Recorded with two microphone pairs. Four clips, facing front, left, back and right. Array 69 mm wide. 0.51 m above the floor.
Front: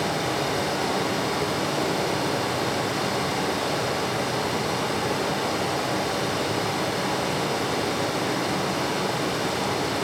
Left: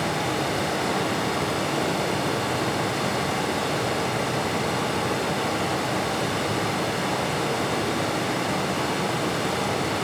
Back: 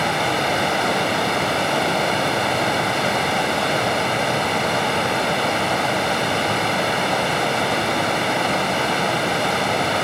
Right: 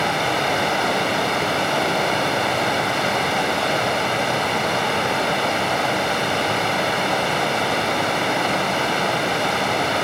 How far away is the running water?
About 3 m.